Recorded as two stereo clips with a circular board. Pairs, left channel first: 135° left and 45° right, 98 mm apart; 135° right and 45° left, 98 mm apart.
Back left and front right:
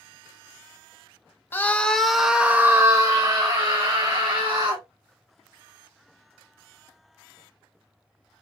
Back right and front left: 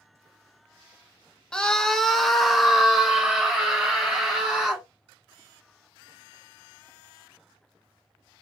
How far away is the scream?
About 0.9 m.